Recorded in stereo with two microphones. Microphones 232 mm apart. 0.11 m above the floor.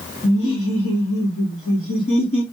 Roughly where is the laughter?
Left.